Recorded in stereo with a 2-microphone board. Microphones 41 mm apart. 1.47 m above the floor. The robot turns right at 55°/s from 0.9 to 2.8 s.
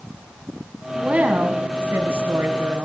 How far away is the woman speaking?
About 1.5 m.